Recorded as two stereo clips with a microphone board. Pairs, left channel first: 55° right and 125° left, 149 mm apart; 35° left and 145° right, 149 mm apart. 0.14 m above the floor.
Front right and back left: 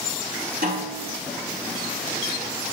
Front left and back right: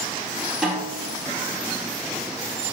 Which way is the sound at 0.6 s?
130° left.